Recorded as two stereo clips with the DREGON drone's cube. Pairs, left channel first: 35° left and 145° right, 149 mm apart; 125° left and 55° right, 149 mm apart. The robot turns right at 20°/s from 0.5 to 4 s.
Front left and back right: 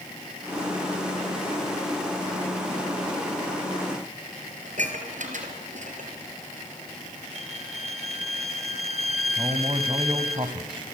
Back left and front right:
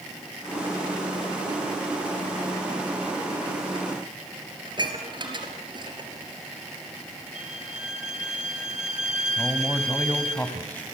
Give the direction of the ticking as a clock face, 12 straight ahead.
I don't hear ticking.